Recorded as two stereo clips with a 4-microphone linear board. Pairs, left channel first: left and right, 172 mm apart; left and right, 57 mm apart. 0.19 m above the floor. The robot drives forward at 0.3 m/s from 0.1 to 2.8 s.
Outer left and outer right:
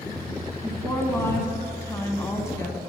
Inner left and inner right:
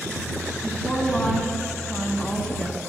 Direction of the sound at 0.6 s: 15° left (ahead or behind).